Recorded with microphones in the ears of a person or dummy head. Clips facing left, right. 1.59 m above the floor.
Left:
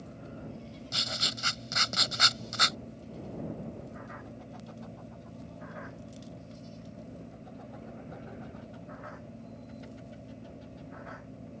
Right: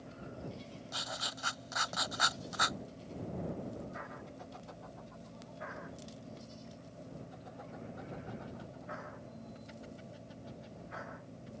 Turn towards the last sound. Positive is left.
turn(degrees=40)  # may be behind; listen again after turning